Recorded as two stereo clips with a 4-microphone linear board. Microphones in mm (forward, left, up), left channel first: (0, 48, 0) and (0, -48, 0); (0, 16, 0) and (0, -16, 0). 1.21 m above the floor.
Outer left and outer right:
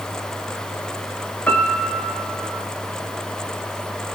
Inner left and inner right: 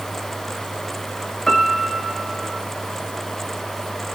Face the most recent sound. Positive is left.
turn(degrees=15)  # may be behind; listen again after turning